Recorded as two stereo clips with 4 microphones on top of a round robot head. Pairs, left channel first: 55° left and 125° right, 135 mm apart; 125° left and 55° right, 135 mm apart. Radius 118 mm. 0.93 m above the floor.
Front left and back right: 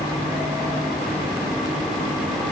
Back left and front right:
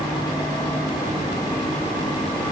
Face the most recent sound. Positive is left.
No sound to turn to.